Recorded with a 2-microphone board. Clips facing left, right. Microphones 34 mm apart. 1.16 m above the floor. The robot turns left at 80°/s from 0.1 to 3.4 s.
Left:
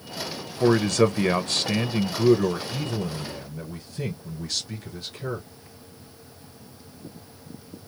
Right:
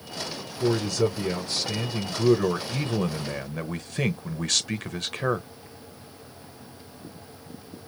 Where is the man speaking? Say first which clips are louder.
Left 5 dB; 140° left, 0.7 m; by 5.5 s 85° right, 0.7 m.